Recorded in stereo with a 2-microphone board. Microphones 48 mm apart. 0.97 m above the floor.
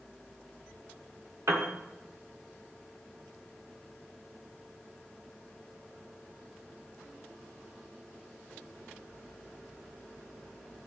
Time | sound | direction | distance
1.5 | a piano | 80° right | 1.5 m